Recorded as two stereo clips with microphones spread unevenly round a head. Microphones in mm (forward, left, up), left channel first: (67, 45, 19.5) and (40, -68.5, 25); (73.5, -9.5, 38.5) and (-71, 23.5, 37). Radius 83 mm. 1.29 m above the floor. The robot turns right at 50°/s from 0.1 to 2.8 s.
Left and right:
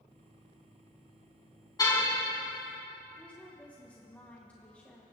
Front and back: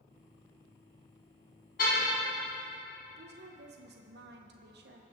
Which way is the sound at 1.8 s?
20° left.